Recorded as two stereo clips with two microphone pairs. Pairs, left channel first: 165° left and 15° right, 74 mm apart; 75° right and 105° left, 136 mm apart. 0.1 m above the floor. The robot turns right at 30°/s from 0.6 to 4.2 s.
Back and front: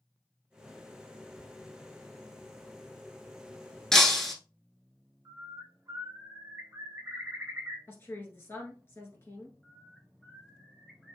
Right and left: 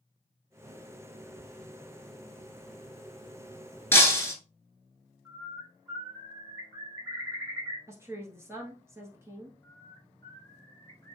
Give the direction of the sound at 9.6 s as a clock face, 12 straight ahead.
4 o'clock.